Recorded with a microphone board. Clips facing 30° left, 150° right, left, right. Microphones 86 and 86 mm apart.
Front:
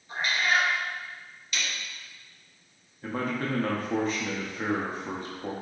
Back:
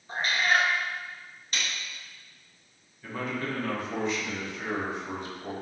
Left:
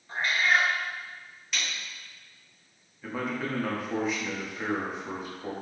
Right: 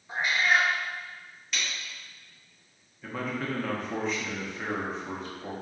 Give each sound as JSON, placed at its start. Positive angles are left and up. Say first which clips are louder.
{"t": 0.1, "sound": "a cat meowing", "louder": "back 1 dB, even", "azimuth_deg": -160, "distance_m": 0.8}
{"t": 1.5, "sound": "a snare drum", "louder": "even, even", "azimuth_deg": 180, "distance_m": 0.9}
{"t": 3.0, "sound": "a man speaking", "louder": "front 3 dB, left 1 dB", "azimuth_deg": 10, "distance_m": 0.9}